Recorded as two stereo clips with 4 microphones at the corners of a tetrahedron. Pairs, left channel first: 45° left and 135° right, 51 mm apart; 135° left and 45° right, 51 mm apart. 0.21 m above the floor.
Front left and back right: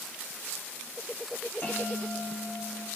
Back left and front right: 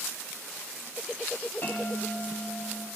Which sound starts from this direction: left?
A bell, at 1.6 s.